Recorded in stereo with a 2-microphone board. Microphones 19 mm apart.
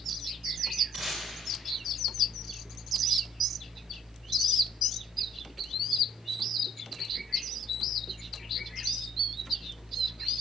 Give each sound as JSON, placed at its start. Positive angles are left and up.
{"t": 0.9, "sound": "tape being pulled", "side_deg": -35, "distance_m": 3.0}